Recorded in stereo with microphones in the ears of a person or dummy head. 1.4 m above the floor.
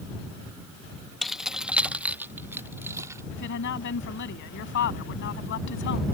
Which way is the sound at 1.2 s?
5° left (ahead or behind).